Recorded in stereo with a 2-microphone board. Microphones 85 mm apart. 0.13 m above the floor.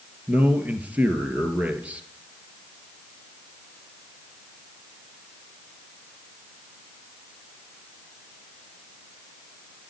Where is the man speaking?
15° right (ahead or behind), 2.0 m.